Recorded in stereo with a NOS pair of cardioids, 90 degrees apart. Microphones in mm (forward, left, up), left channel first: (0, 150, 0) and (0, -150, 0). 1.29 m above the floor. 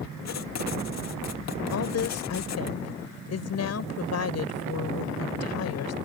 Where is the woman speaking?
55° left.